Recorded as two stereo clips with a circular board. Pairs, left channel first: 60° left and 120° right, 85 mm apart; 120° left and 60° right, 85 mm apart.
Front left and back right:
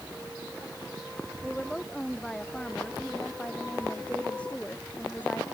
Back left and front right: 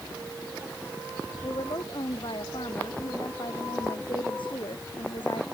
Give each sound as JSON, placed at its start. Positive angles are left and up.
{"t": 1.4, "sound": "a woman speaking", "azimuth_deg": 145}